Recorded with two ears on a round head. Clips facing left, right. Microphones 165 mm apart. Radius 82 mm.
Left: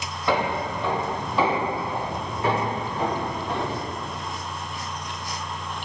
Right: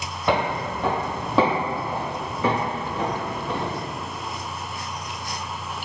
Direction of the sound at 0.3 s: 15° right (ahead or behind).